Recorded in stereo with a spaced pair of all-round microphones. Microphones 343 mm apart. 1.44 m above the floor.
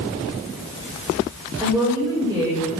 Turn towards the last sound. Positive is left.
turn(degrees=-10)  # may be behind; listen again after turning